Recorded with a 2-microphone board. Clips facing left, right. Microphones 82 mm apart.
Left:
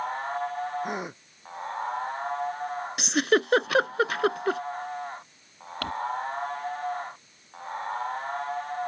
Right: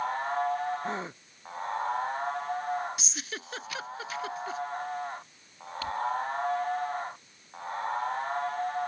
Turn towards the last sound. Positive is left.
turn(degrees=60)  # may be behind; listen again after turning